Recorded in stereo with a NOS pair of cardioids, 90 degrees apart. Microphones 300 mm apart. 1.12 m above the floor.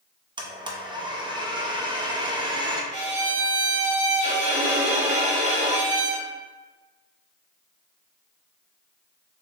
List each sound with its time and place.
0.4 s a blender: 15° right, 0.8 m
2.9 s a violin: 25° right, 1.7 m